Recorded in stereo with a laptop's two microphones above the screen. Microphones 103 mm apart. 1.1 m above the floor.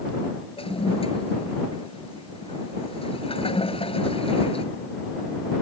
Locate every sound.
0.6 s a toilet flushing: 65° left (ahead or behind)